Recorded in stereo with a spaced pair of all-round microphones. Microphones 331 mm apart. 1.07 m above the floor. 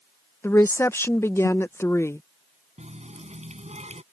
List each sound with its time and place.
0.4 s a woman speaking: 10° left (ahead or behind)
2.8 s a running tap: 20° right (ahead or behind)